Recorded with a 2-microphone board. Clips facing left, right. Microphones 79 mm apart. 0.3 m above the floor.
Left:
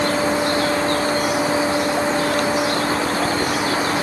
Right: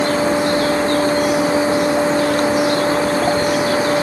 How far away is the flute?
No flute in this recording.